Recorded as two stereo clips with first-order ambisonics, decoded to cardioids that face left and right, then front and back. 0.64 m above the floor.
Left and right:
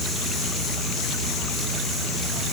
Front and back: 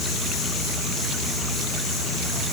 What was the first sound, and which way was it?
Only background noise.